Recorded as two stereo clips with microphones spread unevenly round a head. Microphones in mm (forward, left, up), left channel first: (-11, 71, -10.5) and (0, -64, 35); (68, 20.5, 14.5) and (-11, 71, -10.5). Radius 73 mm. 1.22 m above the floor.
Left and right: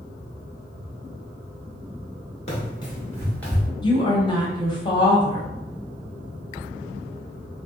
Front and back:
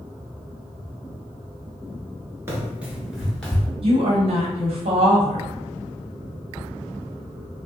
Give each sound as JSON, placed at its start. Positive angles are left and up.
{"t": 2.5, "sound": "running footsteps", "azimuth_deg": 90, "distance_m": 1.2}
{"t": 3.8, "sound": "a woman speaking", "azimuth_deg": 145, "distance_m": 0.9}